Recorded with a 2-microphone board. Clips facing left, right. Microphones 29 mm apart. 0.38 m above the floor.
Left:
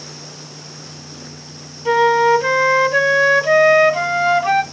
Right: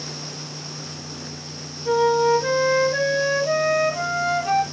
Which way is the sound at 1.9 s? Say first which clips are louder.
Left 5 dB; 40° left (ahead or behind).